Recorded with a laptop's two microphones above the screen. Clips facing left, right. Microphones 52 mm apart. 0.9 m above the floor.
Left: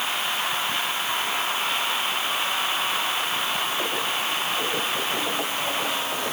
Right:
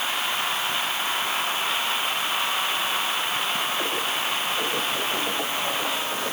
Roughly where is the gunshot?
No gunshot in this recording.